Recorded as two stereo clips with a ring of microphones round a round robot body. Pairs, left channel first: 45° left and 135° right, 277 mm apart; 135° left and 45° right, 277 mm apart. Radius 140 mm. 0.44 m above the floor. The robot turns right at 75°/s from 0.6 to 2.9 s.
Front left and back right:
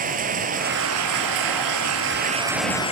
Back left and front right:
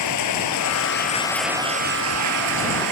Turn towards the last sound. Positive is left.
turn(degrees=-25)